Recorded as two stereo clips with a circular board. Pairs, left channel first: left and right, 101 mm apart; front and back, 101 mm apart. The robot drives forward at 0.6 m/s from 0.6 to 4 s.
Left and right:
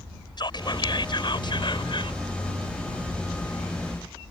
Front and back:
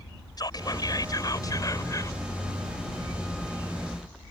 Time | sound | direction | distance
0.4 | whispering | 50° left | ?